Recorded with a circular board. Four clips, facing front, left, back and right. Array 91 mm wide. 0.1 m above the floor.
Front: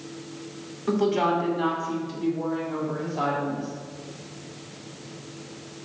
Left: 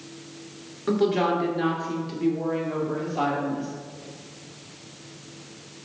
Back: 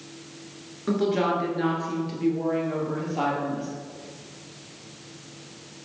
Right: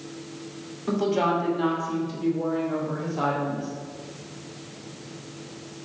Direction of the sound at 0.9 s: 115° left.